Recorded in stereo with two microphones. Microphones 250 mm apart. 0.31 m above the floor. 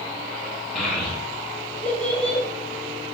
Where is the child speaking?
Centre (ahead or behind), 1.0 m; by 2.4 s 5° left (ahead or behind), 1.8 m.